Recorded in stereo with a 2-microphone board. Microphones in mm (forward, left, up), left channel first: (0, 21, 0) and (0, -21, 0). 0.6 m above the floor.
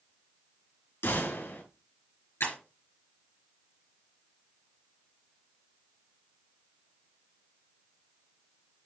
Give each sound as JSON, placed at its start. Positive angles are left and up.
{"t": 1.0, "sound": "a gunshot", "side_deg": 70, "distance_m": 4.0}
{"t": 2.4, "sound": "breaking glass", "side_deg": 75, "distance_m": 4.5}